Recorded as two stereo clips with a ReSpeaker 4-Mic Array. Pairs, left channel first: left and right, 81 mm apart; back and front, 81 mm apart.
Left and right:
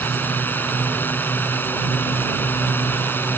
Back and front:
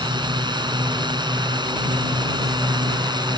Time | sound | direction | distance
0.0 | a drone | 25° left | ?